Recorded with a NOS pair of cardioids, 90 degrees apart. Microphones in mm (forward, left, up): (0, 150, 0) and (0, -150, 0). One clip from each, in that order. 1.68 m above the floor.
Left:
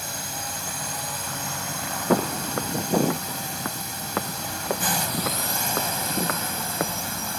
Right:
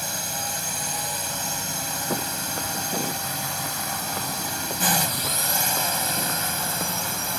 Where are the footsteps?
55° left.